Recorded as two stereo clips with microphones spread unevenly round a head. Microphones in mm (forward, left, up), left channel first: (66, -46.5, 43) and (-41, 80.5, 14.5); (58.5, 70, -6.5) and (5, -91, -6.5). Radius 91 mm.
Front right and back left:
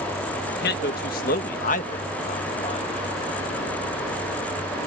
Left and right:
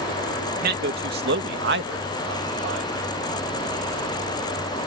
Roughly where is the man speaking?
Right.